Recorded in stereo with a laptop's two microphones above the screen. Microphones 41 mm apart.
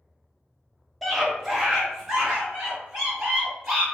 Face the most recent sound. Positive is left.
turn(degrees=-10)  # may be behind; listen again after turning